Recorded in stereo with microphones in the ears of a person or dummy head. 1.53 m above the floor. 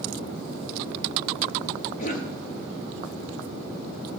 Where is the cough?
45° left (ahead or behind), 0.8 m.